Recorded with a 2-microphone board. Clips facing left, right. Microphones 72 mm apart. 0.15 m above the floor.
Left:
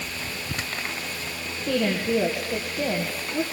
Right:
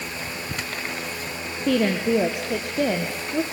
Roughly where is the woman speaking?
Right.